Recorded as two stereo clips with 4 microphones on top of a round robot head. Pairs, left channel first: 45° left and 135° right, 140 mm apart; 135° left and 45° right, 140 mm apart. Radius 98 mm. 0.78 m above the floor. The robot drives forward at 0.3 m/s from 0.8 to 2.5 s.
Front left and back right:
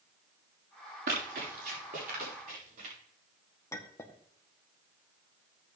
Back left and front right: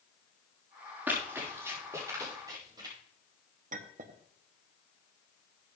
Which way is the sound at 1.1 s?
120° right.